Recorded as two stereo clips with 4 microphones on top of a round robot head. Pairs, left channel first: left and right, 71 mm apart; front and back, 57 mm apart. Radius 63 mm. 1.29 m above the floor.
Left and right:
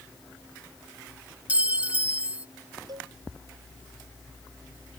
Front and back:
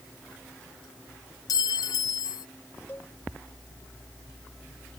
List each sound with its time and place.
1.5 s a clink: 15° right
2.9 s a cowbell: 65° right